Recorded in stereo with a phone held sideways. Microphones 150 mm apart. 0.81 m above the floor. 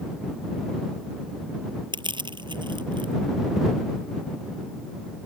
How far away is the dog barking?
No dog barking in this recording.